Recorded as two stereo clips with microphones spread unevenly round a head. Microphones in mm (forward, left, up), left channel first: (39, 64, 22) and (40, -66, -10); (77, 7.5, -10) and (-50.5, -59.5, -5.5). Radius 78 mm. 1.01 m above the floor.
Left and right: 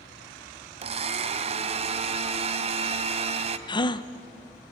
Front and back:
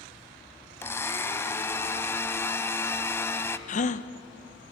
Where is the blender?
45° right, 1.1 m.